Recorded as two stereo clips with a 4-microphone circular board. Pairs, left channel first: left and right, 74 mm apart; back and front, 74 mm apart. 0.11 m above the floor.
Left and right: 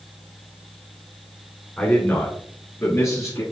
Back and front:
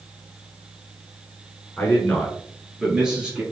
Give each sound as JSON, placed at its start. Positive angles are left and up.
{"t": 1.8, "sound": "a man speaking", "azimuth_deg": 145, "distance_m": 1.3}